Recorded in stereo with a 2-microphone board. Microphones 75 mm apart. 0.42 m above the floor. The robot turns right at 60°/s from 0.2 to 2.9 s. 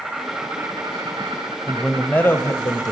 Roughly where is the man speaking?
Ahead.